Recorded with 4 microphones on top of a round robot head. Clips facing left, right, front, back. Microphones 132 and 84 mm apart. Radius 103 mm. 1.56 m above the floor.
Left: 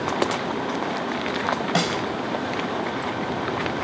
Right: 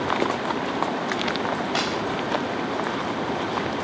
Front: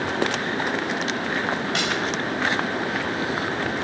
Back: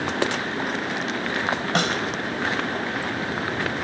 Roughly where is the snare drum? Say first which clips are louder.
Left 2 dB, back 2 dB; behind left.